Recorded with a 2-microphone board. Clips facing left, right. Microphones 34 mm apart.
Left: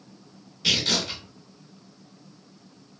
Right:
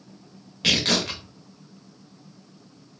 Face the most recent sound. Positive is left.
turn(degrees=-60)  # may be behind; listen again after turning